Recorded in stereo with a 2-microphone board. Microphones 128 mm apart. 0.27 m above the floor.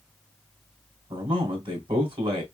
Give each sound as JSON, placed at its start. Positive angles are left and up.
{"t": 1.1, "sound": "a man speaking", "side_deg": -40, "distance_m": 2.5}